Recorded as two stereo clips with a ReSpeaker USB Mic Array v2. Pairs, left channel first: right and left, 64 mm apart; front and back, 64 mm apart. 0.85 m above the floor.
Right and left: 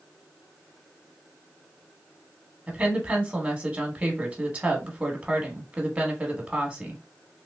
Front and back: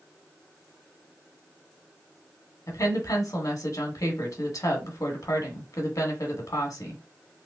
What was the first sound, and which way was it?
A woman speaking, 25° left.